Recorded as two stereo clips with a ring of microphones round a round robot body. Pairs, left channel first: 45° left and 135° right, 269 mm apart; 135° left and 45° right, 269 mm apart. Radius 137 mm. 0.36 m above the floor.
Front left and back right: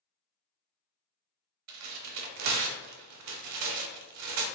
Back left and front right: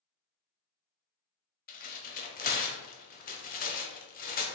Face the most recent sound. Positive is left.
turn(degrees=-165)